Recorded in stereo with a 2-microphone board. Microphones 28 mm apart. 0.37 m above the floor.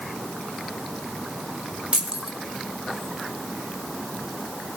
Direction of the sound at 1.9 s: 50° right (ahead or behind).